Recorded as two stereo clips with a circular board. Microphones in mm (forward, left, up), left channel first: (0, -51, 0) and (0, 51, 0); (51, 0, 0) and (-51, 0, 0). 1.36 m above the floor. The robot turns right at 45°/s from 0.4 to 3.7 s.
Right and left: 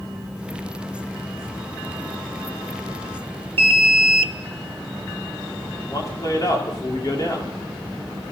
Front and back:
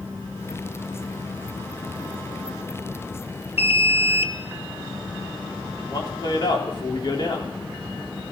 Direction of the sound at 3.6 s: 105° left.